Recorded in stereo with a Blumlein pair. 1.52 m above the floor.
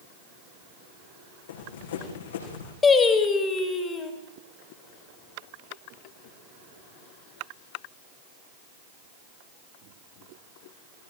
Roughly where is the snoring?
No snoring in this recording.